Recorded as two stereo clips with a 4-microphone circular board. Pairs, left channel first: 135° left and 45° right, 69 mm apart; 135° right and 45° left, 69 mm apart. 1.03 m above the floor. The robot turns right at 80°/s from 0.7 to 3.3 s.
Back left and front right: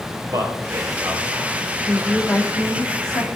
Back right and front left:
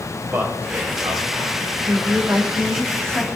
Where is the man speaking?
15° right, 4 m; by 1.8 s 65° left, 4 m.